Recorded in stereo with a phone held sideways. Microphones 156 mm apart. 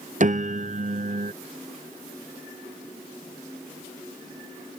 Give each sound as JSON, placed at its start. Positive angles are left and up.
{"t": 0.2, "sound": "a piano", "side_deg": -55}